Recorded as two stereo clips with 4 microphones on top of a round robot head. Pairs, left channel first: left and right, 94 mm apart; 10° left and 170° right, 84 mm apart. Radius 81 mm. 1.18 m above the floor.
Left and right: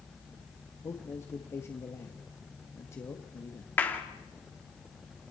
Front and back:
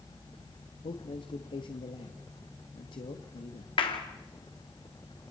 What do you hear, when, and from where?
0.8 s a man speaking: 30° left, 1.5 m
3.8 s a clap: 20° left, 2.5 m